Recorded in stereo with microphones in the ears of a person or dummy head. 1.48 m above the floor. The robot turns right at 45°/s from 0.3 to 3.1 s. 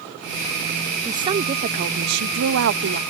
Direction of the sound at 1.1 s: 165° right.